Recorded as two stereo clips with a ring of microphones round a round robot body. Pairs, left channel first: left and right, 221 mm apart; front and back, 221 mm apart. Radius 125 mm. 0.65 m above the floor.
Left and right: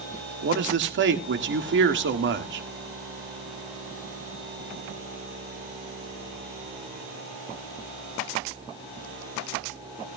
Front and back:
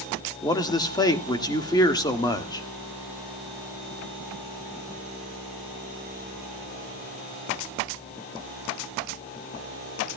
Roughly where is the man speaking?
Right.